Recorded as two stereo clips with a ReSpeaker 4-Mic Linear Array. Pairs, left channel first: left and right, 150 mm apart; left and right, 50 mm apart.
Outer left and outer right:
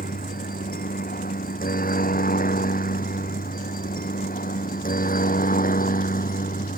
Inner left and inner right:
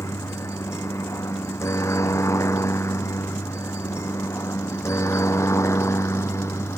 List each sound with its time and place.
0.0 s a helicopter: 75° left (ahead or behind); by 6.8 s 70° left (ahead or behind)